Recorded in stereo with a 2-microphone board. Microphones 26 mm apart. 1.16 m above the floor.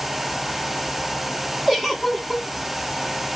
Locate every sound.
1.7 s a giggle: 10° right (ahead or behind), 0.7 m